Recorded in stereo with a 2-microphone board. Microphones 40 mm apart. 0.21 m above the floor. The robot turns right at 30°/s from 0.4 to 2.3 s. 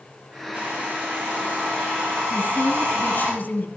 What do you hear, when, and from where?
0.5 s a hair dryer: 130° right, 8.5 m; by 3.3 s 80° right, 8.5 m
2.3 s a woman speaking: 50° left (ahead or behind), 1.7 m